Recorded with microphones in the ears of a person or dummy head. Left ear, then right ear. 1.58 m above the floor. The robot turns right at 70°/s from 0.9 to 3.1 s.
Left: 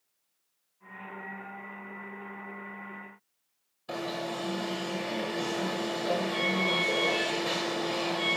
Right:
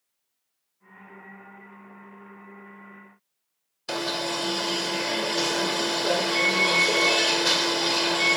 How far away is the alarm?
About 1.1 m.